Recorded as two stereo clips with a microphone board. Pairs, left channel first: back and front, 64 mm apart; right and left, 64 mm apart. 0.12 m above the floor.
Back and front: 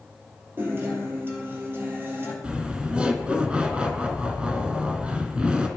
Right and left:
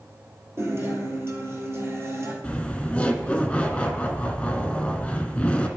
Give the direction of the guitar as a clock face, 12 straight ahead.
10 o'clock.